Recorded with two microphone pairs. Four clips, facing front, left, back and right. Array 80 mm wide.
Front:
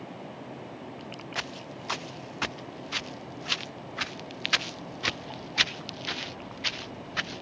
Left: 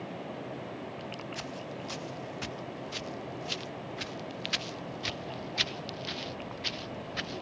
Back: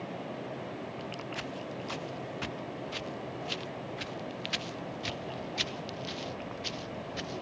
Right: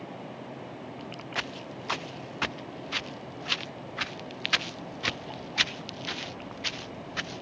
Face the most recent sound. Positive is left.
turn(degrees=-15)